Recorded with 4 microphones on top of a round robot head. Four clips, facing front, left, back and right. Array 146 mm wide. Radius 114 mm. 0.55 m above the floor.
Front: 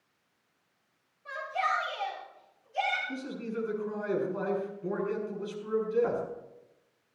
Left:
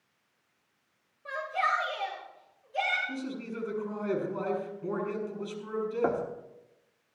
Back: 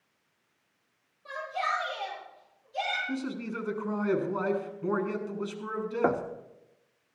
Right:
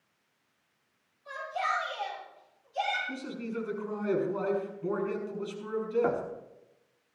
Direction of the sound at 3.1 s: Straight behind.